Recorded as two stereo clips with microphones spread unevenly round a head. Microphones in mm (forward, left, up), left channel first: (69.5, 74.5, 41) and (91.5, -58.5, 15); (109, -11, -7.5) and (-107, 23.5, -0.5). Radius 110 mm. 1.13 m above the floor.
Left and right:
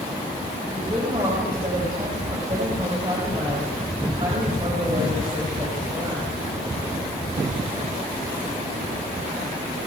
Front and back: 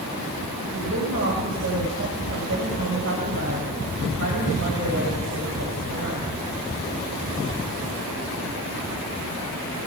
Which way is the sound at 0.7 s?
150° right.